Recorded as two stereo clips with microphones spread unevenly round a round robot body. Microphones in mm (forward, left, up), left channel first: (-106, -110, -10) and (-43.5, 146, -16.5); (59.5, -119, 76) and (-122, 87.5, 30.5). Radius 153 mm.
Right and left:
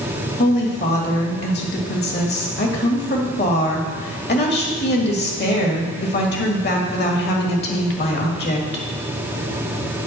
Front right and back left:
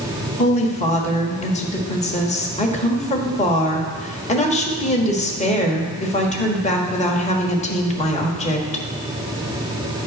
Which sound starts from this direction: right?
A woman speaking, at 0.4 s.